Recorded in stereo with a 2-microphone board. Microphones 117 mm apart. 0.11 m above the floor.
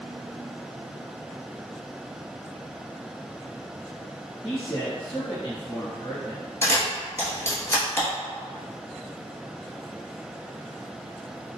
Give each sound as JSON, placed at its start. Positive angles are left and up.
{"t": 4.4, "sound": "a man speaking", "side_deg": 45, "distance_m": 1.7}
{"t": 6.6, "sound": "a camera shutter", "side_deg": 25, "distance_m": 1.4}